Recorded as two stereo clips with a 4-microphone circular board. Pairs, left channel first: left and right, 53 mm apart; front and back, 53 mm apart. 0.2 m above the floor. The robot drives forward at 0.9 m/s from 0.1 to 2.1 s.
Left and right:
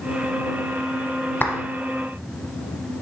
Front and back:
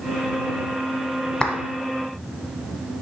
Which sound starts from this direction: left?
A clap, at 1.4 s.